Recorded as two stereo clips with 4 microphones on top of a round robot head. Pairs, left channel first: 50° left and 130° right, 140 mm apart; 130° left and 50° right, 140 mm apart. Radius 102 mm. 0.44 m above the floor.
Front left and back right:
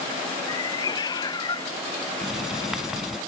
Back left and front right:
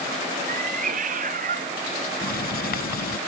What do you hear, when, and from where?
0.5 s a cat meowing: 15° right
2.2 s writing: 140° left